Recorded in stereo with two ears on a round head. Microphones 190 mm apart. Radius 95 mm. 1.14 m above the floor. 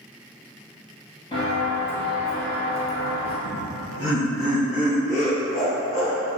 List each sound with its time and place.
1.3 s footsteps: 25° left (ahead or behind), 1.4 m; by 3.4 s 30° right (ahead or behind), 1.2 m
3.5 s laughter: 70° left (ahead or behind), 1.5 m